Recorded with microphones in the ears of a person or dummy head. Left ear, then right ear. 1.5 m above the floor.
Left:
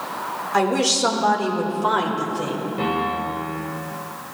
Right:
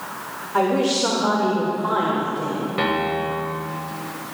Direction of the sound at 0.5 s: 75° left (ahead or behind).